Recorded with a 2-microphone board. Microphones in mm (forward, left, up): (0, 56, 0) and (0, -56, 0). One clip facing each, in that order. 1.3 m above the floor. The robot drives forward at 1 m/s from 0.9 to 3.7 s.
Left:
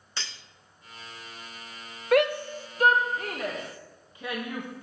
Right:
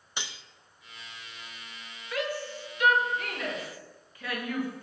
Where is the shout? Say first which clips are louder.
Left 10 dB; 65° left (ahead or behind), 0.8 m; by 4.8 s 20° left (ahead or behind), 1.9 m.